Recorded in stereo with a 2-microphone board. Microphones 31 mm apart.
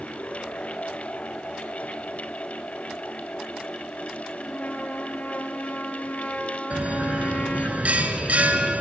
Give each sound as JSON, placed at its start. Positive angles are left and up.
{"t": 4.4, "sound": "a trumpet", "side_deg": 55, "distance_m": 4.0}
{"t": 6.7, "sound": "a bell", "side_deg": -50, "distance_m": 2.5}